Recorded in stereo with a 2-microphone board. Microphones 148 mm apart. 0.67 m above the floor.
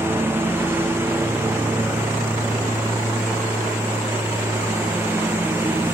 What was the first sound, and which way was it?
A lawn mower, 15° right (ahead or behind).